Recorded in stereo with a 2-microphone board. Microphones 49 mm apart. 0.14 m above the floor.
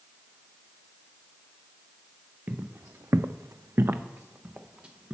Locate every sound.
2.5 s footsteps: 35° right (ahead or behind), 0.8 m; by 5.2 s 20° right (ahead or behind), 1.2 m